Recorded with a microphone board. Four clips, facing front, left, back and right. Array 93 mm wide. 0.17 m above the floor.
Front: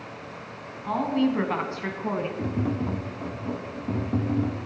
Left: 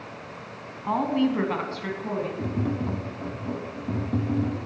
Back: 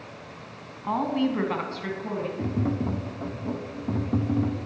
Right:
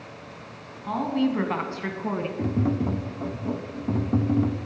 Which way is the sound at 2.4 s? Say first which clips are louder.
Right 3 dB, even; 110° right.